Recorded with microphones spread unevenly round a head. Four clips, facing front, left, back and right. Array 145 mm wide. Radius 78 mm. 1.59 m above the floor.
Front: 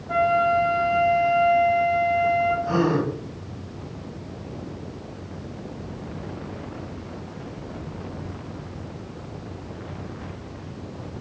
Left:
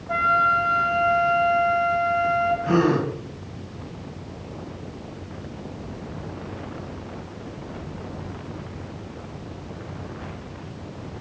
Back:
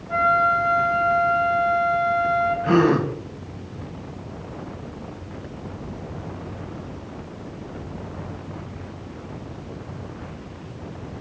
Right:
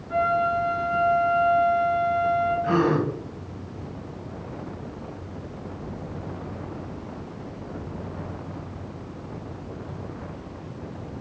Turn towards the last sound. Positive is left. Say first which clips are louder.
# left 3 dB, back 4 dB
turn(degrees=165)